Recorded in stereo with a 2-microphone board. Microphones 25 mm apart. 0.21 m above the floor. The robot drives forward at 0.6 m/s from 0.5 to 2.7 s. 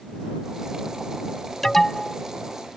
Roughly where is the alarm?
Centre.